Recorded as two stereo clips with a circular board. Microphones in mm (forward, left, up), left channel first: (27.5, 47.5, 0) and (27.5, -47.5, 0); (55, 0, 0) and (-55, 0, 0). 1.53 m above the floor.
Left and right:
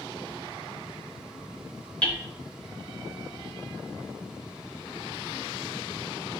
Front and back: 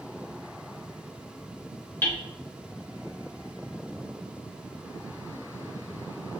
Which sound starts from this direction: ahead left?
Hammering, at 2.0 s.